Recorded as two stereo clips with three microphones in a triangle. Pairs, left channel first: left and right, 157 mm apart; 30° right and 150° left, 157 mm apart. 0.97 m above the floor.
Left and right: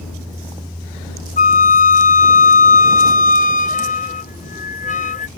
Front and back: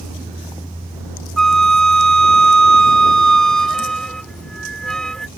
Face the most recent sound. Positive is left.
turn(degrees=55)